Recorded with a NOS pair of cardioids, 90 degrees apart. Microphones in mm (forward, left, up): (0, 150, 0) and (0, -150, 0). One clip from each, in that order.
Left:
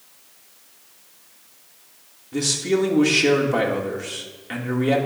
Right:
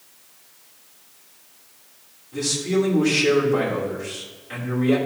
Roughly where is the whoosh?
I don't hear a whoosh.